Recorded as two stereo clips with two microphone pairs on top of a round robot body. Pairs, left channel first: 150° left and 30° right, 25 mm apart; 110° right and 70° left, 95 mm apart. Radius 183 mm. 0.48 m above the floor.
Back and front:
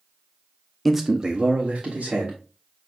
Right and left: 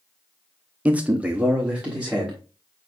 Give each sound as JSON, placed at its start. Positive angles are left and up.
{"t": 0.8, "sound": "a man speaking", "azimuth_deg": 60, "distance_m": 0.8}